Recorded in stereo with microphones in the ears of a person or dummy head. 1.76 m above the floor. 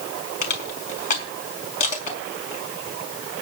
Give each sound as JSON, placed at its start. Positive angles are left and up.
{"t": 0.4, "sound": "crushing", "side_deg": 55, "distance_m": 4.5}